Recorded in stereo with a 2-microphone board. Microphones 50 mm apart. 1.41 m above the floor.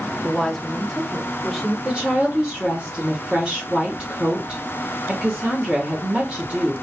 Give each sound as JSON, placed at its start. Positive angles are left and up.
{"t": 0.2, "sound": "a woman speaking", "side_deg": 10, "distance_m": 0.5}
{"t": 1.9, "sound": "a woman speaking", "side_deg": -20, "distance_m": 1.4}